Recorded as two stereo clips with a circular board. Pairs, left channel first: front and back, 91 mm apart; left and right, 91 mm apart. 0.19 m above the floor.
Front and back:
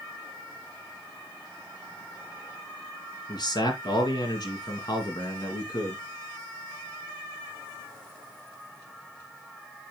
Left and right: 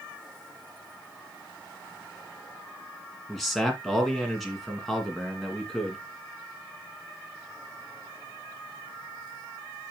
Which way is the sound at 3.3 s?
Straight ahead.